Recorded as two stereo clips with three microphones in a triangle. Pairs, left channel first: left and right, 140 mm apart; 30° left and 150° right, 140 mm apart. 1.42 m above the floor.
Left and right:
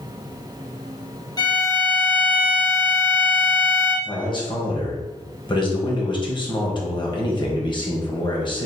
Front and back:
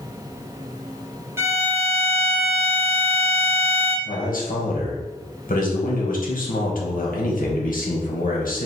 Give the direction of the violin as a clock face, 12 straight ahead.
7 o'clock.